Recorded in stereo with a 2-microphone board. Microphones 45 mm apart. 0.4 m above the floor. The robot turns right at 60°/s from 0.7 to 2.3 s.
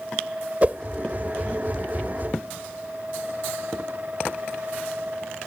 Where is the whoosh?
35° right (ahead or behind).